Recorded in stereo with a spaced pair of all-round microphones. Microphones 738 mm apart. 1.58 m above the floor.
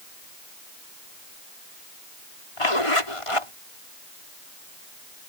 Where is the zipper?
45° left (ahead or behind).